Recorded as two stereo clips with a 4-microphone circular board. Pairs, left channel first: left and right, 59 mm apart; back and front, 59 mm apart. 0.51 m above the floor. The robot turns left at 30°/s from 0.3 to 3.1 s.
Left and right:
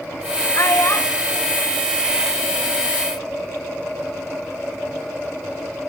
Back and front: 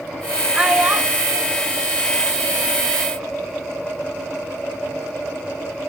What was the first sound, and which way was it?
A child speaking, 70° left.